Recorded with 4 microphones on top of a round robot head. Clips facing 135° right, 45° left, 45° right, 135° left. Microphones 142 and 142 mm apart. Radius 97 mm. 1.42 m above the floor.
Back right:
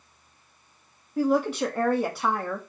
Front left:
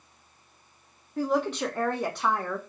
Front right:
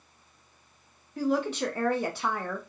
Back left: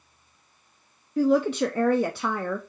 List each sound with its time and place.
1.2 s a woman speaking: 140° left, 0.5 m